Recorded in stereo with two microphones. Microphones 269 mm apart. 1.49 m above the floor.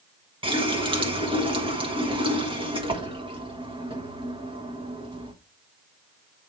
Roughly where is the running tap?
Centre.